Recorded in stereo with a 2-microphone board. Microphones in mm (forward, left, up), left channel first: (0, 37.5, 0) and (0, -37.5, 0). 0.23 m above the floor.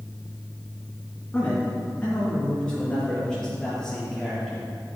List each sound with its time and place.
1.3 s a man speaking: 15° left (ahead or behind), 3 m; by 4.7 s centre (ahead or behind), 5 m